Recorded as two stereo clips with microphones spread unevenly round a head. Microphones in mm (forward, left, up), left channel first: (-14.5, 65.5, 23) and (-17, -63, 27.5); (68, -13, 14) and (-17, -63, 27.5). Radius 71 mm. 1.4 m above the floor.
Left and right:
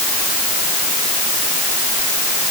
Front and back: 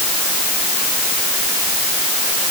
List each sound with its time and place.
Only background noise.